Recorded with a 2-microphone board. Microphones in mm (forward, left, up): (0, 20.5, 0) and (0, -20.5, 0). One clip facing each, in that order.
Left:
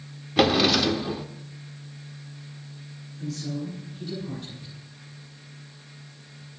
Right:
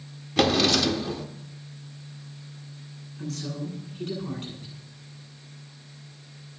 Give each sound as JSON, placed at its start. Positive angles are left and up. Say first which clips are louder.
{"t": 0.4, "sound": "a drawer", "louder": "left 1 dB", "side_deg": 10, "distance_m": 0.9}
{"t": 3.2, "sound": "a woman speaking", "louder": "left 1 dB", "side_deg": -55, "distance_m": 9.0}